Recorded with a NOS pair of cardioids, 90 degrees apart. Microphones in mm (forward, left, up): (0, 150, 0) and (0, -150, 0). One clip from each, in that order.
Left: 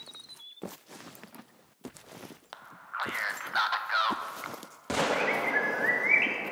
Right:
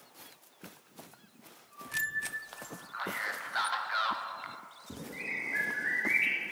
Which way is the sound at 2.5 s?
25° left.